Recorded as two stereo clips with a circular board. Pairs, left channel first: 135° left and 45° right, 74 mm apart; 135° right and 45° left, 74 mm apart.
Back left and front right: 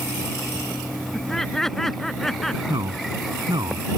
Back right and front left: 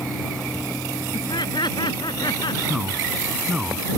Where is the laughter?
145° right; by 2.6 s 140° right.